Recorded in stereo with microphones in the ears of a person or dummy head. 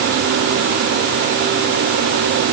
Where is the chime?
I don't hear a chime.